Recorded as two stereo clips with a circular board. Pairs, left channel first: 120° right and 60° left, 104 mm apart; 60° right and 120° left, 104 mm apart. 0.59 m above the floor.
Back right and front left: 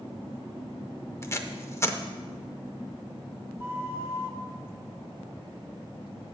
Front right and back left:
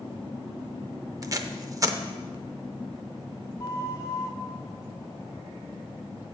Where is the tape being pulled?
175° left, 0.6 m.